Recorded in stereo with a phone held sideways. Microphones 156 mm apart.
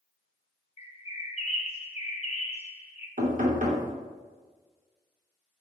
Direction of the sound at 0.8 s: 40° left (ahead or behind).